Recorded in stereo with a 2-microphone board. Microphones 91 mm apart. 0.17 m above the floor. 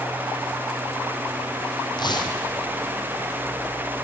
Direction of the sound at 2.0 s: 55° left (ahead or behind).